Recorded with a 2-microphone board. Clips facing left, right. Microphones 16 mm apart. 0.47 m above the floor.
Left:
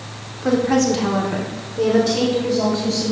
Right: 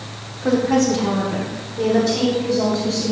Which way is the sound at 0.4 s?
15° left (ahead or behind).